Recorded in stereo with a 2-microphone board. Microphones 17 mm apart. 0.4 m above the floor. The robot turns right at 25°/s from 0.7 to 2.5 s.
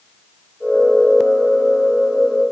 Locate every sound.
Only background noise.